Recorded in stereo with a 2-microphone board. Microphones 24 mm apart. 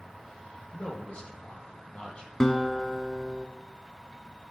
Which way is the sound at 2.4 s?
25° left (ahead or behind).